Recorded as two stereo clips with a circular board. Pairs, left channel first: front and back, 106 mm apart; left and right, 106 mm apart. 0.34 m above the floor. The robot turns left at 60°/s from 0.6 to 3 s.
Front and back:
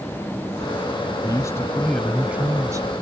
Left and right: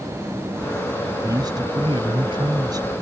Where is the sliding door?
No sliding door in this recording.